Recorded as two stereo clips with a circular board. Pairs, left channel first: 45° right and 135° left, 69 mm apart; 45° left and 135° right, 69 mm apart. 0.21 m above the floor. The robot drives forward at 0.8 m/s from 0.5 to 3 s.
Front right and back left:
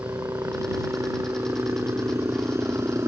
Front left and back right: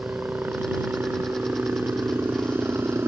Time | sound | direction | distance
0.0 | a helicopter | 170° left | ?